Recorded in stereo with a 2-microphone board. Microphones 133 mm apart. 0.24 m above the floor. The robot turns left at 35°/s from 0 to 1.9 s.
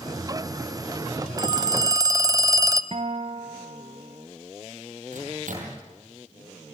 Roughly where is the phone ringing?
Right.